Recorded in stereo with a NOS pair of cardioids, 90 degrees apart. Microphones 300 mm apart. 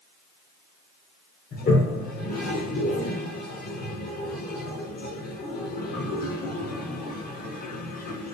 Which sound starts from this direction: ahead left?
A toilet flushing, at 1.5 s.